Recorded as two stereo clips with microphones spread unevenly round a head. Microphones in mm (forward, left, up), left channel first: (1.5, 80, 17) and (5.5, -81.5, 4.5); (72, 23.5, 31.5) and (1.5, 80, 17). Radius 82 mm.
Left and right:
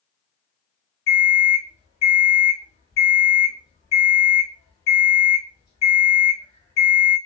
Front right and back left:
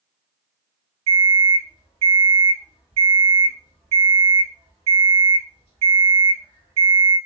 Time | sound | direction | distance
1.1 | an alarm clock | 160° left | 2 m